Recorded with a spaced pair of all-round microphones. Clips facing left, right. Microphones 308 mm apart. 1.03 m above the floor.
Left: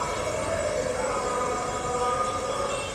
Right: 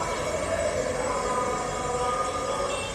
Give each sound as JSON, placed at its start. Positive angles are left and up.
{"t": 0.0, "sound": "an insect", "side_deg": 10, "distance_m": 0.9}